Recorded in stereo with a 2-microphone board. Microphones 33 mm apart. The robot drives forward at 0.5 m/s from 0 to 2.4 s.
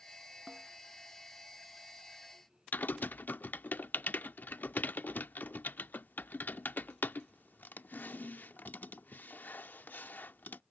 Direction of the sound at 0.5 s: 25° right (ahead or behind).